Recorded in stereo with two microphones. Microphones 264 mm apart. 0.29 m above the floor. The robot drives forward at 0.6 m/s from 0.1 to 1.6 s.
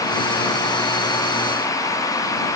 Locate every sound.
Only background noise.